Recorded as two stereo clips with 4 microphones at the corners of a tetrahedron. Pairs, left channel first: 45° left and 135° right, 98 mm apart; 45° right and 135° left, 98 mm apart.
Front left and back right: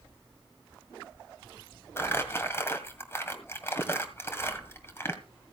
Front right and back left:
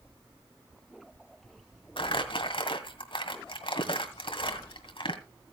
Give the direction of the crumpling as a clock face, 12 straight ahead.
1 o'clock.